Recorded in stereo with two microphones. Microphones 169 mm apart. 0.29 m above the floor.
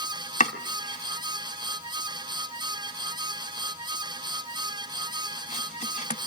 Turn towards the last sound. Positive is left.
turn(degrees=45)  # may be behind; listen again after turning